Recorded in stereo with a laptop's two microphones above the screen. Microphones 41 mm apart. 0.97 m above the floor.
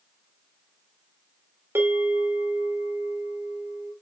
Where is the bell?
85° right, 2.5 m.